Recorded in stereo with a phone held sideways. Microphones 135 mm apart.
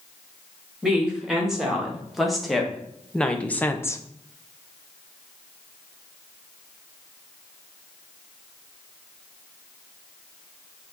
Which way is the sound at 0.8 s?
5° right (ahead or behind).